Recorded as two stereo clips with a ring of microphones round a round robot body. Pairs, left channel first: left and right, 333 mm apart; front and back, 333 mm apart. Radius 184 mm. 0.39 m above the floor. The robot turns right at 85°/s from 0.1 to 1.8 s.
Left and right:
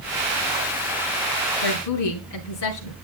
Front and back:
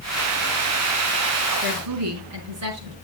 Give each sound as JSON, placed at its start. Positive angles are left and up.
{"t": 1.6, "sound": "a woman speaking", "azimuth_deg": 115, "distance_m": 5.0}